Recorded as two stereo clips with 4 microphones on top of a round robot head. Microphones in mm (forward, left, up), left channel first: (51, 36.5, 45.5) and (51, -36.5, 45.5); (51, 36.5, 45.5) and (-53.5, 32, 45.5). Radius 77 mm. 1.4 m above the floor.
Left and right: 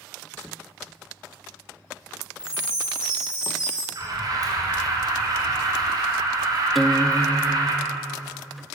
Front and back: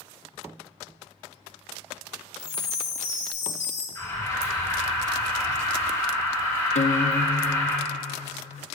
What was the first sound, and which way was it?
A chime, 10° right.